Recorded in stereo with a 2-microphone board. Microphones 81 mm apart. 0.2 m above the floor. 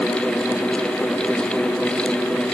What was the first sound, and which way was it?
Only background noise.